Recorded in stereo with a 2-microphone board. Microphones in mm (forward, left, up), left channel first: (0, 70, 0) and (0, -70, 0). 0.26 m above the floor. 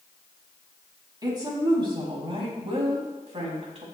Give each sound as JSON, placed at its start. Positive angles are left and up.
{"t": 1.2, "sound": "a woman speaking", "side_deg": -30, "distance_m": 1.9}